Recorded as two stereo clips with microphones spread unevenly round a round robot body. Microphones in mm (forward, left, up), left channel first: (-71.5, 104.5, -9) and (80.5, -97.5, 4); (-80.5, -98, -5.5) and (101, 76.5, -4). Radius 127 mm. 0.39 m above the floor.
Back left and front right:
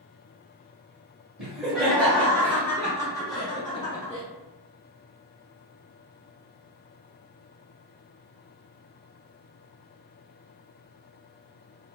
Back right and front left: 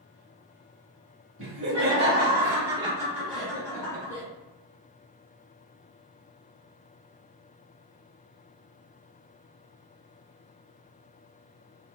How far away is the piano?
I don't hear a piano.